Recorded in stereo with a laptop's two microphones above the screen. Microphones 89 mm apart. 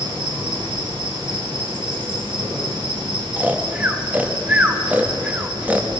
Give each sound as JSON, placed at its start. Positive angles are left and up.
{"t": 0.0, "sound": "an insect", "side_deg": -60, "distance_m": 2.5}
{"t": 3.4, "sound": "snoring", "side_deg": -15, "distance_m": 0.5}